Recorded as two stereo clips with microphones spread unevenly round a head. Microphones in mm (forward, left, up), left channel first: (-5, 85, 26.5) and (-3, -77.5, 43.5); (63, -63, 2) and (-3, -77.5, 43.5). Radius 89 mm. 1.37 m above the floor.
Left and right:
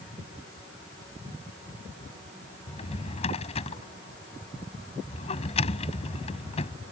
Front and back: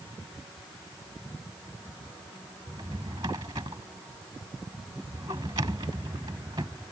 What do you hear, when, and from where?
2.7 s a drawer: 145° left